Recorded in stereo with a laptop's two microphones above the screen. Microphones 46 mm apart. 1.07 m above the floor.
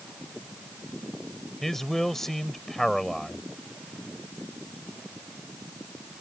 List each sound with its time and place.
1.6 s a man speaking: 10° left (ahead or behind)